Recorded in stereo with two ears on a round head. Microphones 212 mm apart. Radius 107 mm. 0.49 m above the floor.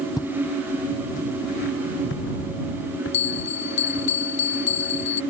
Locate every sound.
0.2 s footsteps: 15° left (ahead or behind); by 4.1 s 60° left (ahead or behind)
3.1 s a bell: 85° left